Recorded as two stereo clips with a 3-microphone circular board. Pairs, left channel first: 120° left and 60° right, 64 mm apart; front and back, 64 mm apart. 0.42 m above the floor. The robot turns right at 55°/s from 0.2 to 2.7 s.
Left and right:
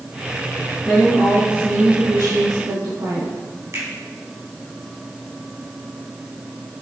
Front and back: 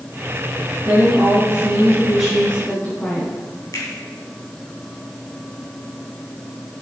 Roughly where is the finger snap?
Ahead.